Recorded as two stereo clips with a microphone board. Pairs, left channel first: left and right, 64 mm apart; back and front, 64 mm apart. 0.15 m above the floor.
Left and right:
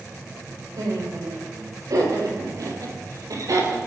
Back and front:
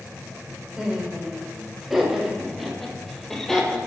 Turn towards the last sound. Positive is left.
turn(degrees=-100)